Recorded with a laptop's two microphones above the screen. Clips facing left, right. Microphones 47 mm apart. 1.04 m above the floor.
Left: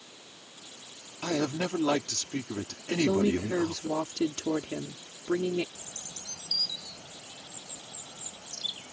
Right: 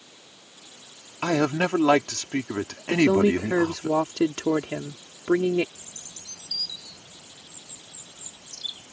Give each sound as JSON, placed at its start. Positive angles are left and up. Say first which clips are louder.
{"t": 1.2, "sound": "a man speaking", "louder": "right 7 dB", "side_deg": -55}
{"t": 2.9, "sound": "a woman speaking", "louder": "right 6 dB", "side_deg": -50}
{"t": 5.8, "sound": "a bird", "louder": "left 1 dB", "side_deg": 75}